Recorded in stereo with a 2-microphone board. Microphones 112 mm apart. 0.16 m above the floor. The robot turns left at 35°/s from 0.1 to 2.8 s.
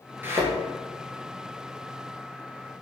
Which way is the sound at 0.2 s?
20° right (ahead or behind).